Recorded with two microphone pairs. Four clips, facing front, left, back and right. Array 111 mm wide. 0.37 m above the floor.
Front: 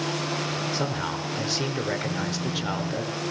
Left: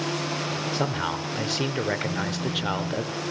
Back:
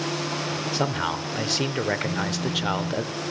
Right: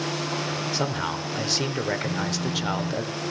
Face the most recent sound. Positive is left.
turn(degrees=-120)